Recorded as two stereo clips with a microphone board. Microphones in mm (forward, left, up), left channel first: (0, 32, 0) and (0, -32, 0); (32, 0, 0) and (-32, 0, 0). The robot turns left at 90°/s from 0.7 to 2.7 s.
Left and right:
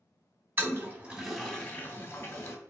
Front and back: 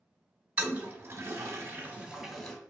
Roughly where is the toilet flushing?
Behind right.